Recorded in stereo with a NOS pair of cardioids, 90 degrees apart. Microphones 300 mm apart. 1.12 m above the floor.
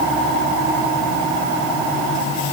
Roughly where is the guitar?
No guitar in this recording.